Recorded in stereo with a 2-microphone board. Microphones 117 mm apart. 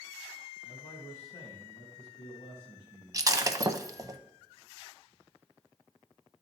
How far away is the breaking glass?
About 0.5 m.